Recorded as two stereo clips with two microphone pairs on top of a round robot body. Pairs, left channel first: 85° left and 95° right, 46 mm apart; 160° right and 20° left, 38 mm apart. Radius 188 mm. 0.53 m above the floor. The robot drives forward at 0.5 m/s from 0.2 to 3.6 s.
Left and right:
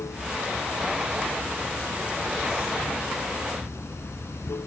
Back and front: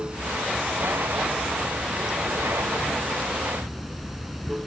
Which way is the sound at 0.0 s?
85° left.